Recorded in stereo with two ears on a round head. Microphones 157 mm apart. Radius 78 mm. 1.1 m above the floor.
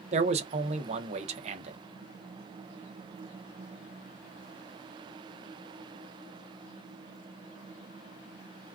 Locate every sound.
0.1 s a man speaking: 40° right (ahead or behind), 0.6 m